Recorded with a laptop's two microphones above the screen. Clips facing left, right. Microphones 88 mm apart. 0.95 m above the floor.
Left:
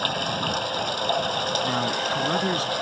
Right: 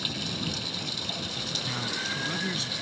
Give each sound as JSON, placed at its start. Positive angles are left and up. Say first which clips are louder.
{"t": 0.0, "sound": "running water", "louder": "left 8 dB", "side_deg": 55}
{"t": 1.6, "sound": "a man speaking", "louder": "left 9 dB", "side_deg": 45}